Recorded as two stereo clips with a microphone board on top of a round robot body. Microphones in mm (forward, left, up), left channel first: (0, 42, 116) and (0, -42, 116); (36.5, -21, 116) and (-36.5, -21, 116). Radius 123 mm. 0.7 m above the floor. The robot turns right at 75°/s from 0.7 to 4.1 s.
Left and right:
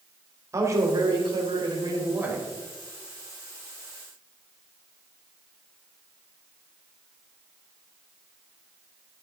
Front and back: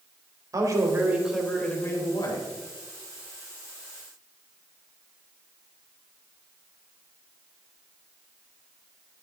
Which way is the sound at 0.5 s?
140° right.